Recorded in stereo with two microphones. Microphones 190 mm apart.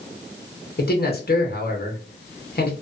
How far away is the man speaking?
About 0.9 m.